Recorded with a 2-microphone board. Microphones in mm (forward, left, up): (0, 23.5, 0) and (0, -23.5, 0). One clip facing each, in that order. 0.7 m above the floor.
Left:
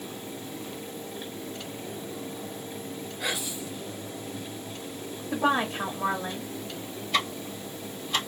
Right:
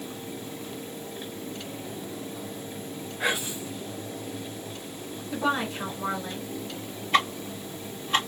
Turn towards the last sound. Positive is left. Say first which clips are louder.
# right 5 dB
turn(degrees=-40)  # may be behind; listen again after turning